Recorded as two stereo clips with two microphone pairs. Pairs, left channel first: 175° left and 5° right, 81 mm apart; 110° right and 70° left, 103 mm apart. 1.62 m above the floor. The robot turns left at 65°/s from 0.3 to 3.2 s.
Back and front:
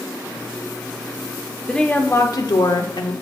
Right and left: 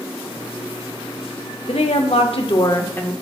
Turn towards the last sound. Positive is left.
turn(degrees=160)